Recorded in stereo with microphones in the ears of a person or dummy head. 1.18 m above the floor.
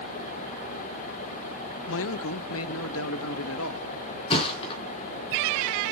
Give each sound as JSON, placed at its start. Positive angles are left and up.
{"t": 1.9, "sound": "a man speaking", "side_deg": 65, "distance_m": 0.7}
{"t": 4.3, "sound": "a thud", "side_deg": 30, "distance_m": 3.5}